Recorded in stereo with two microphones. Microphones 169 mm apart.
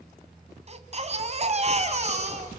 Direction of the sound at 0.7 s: 40° right (ahead or behind).